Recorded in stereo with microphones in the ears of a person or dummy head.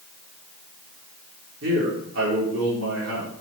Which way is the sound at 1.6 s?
85° right.